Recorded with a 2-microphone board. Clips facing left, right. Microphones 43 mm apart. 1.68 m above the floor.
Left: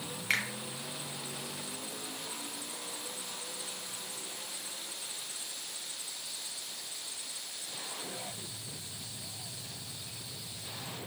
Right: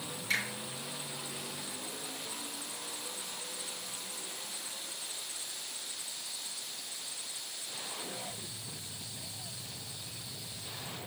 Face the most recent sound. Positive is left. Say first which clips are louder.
# left 2 dB
turn(degrees=60)  # may be behind; listen again after turning